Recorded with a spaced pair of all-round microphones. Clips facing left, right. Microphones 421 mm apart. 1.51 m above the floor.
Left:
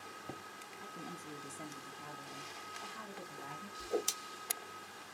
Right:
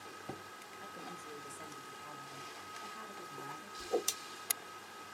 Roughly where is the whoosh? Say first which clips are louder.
Right 1 dB; centre.